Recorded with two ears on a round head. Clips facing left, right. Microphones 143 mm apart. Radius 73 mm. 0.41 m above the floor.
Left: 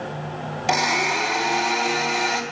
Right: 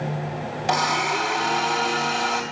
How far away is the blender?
About 3 m.